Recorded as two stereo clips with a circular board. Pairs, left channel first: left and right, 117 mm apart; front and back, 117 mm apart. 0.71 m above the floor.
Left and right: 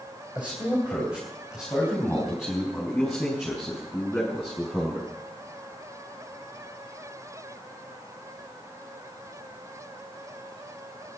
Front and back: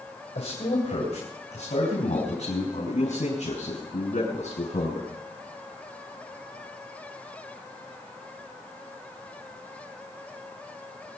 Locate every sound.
0.3 s a man speaking: 10° right, 3.5 m; by 5.1 s straight ahead, 7.5 m